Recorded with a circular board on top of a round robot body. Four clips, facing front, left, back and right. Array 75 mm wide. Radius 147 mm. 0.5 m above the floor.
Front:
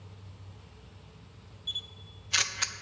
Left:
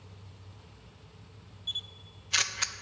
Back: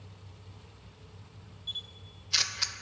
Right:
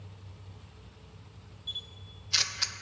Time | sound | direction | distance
1.7 | a camera shutter | 45° left | 0.6 m